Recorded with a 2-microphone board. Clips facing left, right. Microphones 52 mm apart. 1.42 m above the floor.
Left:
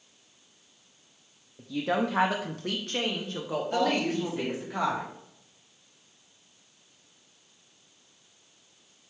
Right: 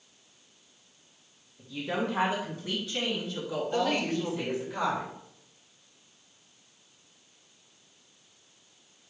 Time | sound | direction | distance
1.6 | a woman speaking | 70° left (ahead or behind) | 0.8 m
3.7 | a woman speaking | 80° left | 3 m